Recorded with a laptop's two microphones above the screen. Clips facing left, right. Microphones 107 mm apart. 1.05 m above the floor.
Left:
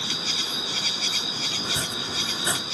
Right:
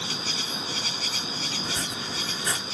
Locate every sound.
0.0 s an insect: 40° right (ahead or behind)
1.6 s chopping: 25° left (ahead or behind)